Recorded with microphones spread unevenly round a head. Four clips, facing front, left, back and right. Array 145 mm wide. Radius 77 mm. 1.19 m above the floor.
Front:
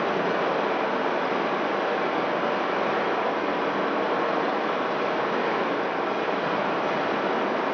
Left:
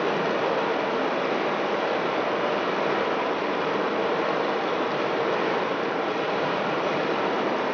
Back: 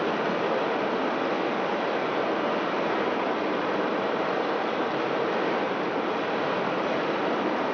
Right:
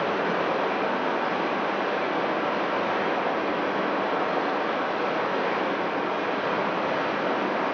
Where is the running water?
95° left, 2.0 m.